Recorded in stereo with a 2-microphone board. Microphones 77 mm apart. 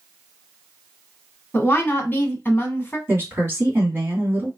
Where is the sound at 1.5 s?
30° left (ahead or behind), 1.3 m.